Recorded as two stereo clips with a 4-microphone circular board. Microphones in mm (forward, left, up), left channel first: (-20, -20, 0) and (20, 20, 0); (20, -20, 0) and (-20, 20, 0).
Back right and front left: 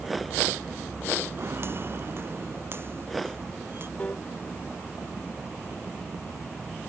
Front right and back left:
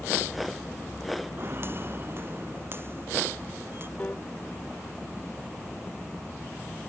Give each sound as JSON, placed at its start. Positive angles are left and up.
{"t": 1.4, "sound": "footsteps", "azimuth_deg": 90}
{"t": 4.0, "sound": "a piano", "azimuth_deg": -90}